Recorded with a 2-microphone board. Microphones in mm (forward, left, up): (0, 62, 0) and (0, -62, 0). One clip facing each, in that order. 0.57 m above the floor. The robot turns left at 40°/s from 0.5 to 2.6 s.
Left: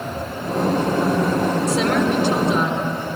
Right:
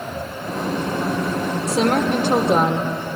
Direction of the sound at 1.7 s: 40° right.